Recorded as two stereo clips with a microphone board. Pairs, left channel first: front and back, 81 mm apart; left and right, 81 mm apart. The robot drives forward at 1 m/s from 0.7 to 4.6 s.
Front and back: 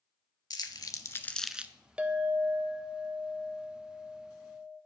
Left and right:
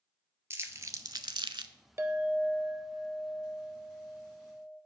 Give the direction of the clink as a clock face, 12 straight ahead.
4 o'clock.